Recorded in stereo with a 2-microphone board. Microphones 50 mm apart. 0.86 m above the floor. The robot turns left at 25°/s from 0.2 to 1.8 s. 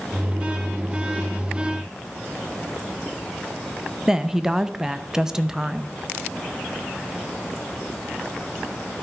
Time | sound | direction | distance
4.1 | a woman speaking | 10° right (ahead or behind) | 0.6 m